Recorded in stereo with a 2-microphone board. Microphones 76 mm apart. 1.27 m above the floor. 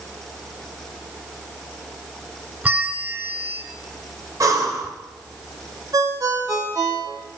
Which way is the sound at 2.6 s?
20° right (ahead or behind).